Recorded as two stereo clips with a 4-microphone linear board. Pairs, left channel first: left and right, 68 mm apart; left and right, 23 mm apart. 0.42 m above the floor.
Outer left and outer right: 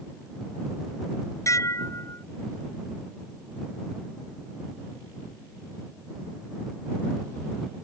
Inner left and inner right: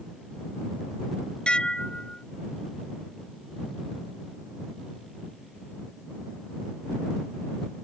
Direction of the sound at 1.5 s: 50° left (ahead or behind).